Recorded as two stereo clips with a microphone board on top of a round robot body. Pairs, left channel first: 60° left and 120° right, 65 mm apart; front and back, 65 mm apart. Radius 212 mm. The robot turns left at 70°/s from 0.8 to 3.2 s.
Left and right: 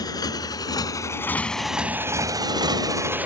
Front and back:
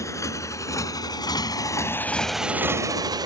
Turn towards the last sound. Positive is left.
turn(degrees=170)